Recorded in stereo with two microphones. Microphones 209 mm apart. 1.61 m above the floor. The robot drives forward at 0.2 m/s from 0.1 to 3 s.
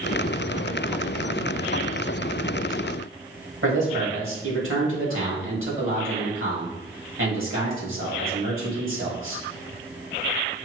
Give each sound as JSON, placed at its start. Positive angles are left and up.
{"t": 3.6, "sound": "a man speaking", "side_deg": -80, "distance_m": 2.0}